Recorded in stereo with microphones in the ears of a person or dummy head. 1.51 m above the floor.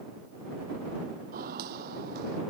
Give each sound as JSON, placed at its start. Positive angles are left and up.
{"t": 1.3, "sound": "footsteps", "side_deg": -45}